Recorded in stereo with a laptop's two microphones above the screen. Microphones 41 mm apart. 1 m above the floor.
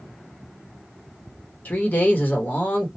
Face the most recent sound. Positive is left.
turn(degrees=40)  # may be behind; listen again after turning